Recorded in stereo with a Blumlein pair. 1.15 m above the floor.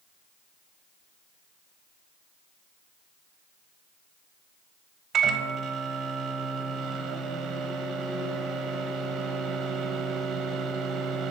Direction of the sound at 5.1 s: 20° right.